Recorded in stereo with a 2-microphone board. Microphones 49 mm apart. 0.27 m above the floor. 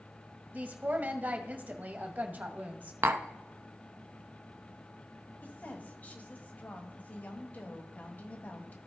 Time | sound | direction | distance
0.5 | a woman speaking | 35° right (ahead or behind) | 1.1 m
3.0 | tapping | 60° right (ahead or behind) | 0.6 m
5.4 | a woman speaking | 35° left (ahead or behind) | 1.5 m